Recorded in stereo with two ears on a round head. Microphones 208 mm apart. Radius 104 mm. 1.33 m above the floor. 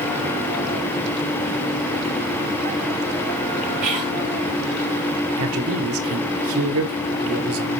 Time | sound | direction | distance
3.8 | whispering | 35° right (ahead or behind) | 3 m
5.4 | a man speaking | 65° right (ahead or behind) | 0.9 m